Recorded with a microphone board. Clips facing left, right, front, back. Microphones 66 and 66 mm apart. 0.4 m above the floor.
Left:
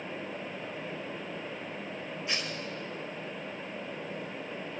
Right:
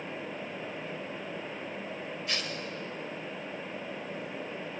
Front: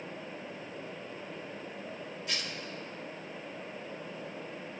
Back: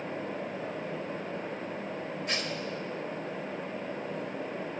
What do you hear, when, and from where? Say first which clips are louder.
2.3 s tearing paper: left 1 dB, back 4 dB; 150° left, 1.4 m